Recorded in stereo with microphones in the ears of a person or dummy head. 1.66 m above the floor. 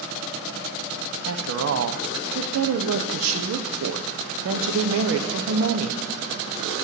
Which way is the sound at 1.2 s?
80° right.